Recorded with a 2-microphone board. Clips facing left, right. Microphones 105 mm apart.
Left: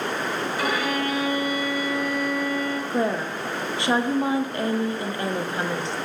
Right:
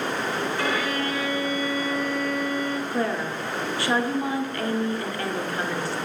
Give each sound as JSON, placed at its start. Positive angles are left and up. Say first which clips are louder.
{"t": 0.6, "sound": "a violin", "louder": "left 3 dB", "side_deg": 15, "distance_m": 1.4}
{"t": 2.9, "sound": "a woman speaking", "louder": "left 2 dB", "side_deg": 20, "distance_m": 0.6}